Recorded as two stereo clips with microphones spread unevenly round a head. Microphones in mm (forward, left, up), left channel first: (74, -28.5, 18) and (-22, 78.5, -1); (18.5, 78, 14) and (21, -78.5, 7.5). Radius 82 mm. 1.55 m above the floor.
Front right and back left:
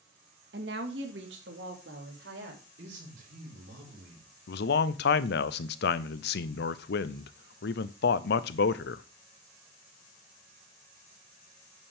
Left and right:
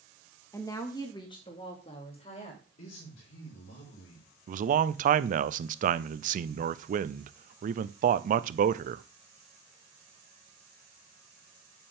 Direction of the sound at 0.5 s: 165° left.